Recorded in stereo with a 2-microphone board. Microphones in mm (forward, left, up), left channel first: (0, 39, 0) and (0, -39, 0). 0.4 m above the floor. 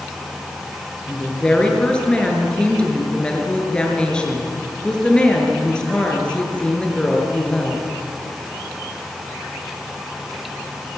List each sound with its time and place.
1.1 s a woman speaking: 10° left (ahead or behind), 6 m